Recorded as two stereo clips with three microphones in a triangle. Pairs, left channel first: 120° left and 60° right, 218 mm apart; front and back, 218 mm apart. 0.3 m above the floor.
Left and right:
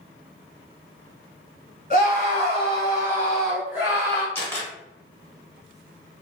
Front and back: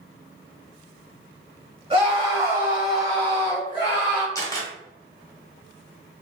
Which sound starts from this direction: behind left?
A scream, at 1.9 s.